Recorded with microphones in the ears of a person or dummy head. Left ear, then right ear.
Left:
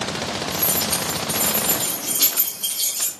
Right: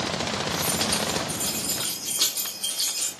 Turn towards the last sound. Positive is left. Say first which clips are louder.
# left 3 dB
turn(degrees=0)  # may be behind; listen again after turning